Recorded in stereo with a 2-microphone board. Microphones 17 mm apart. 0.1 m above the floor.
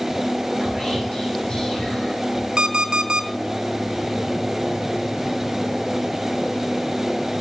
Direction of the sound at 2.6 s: 50° right (ahead or behind).